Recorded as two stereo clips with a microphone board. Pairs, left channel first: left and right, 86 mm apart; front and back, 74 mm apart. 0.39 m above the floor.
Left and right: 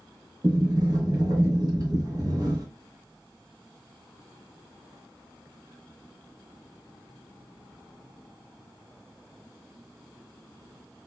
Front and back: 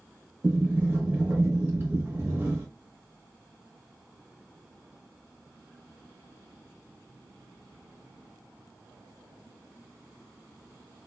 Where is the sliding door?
120° right, 0.8 m.